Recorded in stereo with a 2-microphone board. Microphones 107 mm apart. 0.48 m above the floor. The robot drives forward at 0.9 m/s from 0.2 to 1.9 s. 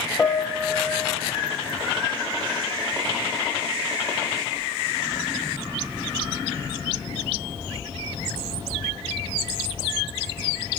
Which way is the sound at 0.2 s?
15° left (ahead or behind).